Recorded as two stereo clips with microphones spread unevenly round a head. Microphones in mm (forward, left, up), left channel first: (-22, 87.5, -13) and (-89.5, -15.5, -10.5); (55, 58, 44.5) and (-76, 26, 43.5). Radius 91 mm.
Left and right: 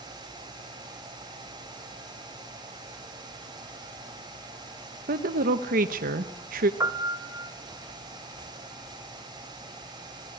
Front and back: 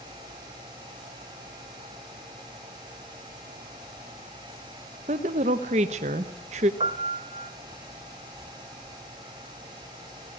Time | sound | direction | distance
5.1 | a woman speaking | 115° right | 0.9 m
6.8 | a piano | 155° right | 1.0 m